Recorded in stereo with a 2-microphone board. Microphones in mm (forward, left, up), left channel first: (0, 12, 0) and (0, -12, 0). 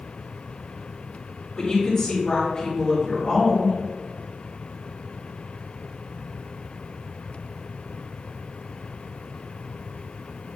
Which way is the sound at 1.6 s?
35° left (ahead or behind).